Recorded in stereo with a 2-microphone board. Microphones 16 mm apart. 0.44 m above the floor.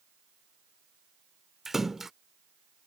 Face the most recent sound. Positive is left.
turn(degrees=-20)  # may be behind; listen again after turning